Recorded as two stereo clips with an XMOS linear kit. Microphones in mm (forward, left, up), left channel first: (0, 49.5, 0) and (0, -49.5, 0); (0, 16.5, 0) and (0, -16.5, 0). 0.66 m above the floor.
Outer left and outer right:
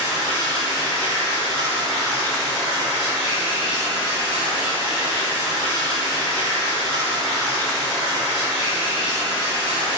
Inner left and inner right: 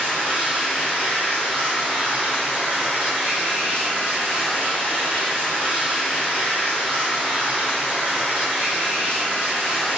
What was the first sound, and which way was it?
Running water, 55° left (ahead or behind).